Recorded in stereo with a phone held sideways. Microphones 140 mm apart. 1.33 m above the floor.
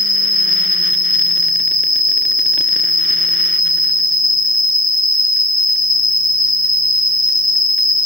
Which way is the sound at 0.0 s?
85° right.